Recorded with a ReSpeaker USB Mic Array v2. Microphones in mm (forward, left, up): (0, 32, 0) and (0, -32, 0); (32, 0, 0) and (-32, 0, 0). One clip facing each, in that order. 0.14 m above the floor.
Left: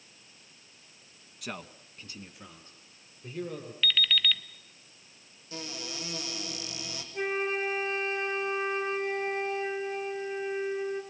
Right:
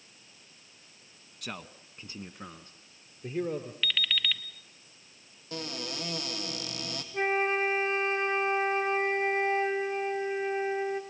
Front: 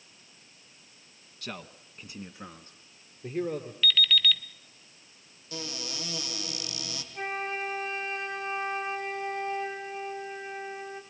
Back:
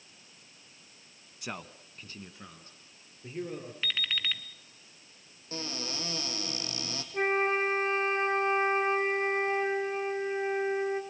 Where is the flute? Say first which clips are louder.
Right 3 dB, back 6 dB; 140° right, 1.9 m.